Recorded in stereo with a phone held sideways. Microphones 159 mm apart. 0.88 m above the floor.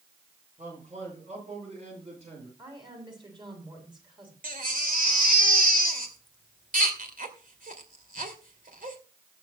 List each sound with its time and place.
0.6 s a man speaking: 45° right (ahead or behind), 9.5 m; by 2.5 s 40° right (ahead or behind), 10.5 m
2.6 s a woman speaking: 30° right (ahead or behind), 7 m
4.4 s a baby crying: 60° right (ahead or behind), 2.5 m